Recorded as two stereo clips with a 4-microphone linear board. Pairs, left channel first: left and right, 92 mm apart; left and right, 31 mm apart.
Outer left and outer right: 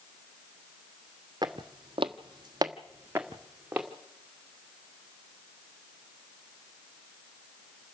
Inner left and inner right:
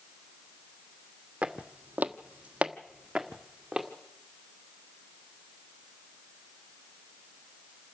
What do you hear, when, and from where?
1.4 s footsteps: 45° right (ahead or behind), 1.5 m; by 3.9 s 10° right (ahead or behind), 3 m